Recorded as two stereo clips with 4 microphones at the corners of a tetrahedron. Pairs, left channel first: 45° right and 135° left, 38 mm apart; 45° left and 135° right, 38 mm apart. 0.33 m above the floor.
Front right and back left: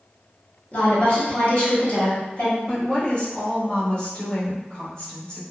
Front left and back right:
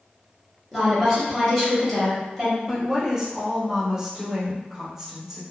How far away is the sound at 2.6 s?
About 1.2 m.